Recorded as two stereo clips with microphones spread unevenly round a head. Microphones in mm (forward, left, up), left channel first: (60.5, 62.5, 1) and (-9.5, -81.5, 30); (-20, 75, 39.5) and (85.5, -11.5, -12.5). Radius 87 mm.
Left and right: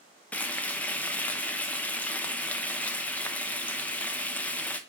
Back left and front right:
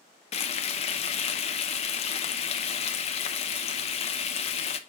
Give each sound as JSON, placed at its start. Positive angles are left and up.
{"t": 0.3, "sound": "frying", "azimuth_deg": 150, "distance_m": 0.6}